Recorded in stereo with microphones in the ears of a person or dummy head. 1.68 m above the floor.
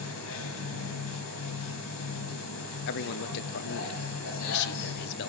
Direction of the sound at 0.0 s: 75° left (ahead or behind).